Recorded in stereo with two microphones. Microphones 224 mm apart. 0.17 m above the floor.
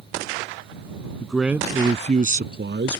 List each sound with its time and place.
1.2 s a man speaking: 5° left (ahead or behind); by 3.0 s 55° right (ahead or behind)